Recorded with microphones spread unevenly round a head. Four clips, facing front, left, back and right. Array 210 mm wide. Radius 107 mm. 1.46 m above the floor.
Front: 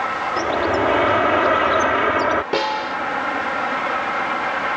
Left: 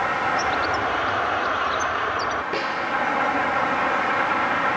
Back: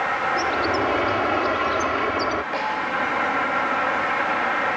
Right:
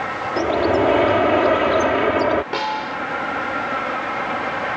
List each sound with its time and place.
0.4 s a bird: 75° right
2.5 s a snare drum: 10° right